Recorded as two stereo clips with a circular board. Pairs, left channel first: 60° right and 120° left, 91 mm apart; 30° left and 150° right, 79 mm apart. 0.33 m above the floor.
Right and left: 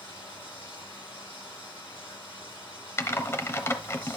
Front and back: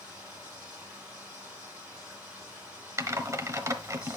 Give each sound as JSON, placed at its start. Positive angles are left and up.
{"t": 0.0, "sound": "running water", "azimuth_deg": -70, "distance_m": 6.5}
{"t": 3.0, "sound": "typing on a keyboard", "azimuth_deg": -110, "distance_m": 0.9}